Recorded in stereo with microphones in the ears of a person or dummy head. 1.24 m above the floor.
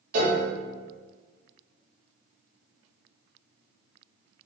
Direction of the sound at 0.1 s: 50° right (ahead or behind).